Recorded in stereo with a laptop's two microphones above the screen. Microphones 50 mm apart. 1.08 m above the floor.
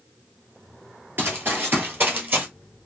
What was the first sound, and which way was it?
Running footsteps, 40° right (ahead or behind).